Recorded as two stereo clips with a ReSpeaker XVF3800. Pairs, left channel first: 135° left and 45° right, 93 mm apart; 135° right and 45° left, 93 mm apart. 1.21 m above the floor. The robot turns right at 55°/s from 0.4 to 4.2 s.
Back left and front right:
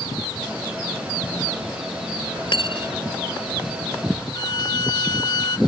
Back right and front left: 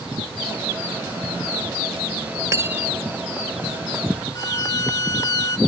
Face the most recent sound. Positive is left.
turn(degrees=175)